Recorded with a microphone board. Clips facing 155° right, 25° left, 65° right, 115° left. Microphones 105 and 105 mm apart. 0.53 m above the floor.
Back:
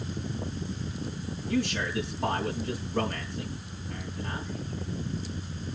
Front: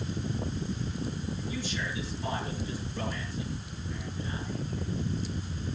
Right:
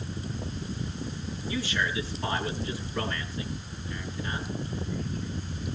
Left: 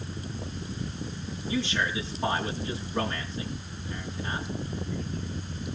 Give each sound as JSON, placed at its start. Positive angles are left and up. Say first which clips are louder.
{"t": 1.5, "sound": "a man speaking", "louder": "back 11 dB, left 2 dB", "azimuth_deg": 175, "distance_m": 4.5}